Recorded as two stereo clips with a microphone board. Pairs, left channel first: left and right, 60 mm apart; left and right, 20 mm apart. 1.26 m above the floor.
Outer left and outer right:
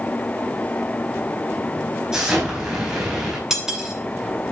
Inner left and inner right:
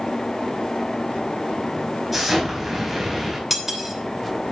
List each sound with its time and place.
2.1 s an explosion: 10° right (ahead or behind), 4.5 m
3.5 s cutlery clinking: 5° right (ahead or behind), 2.5 m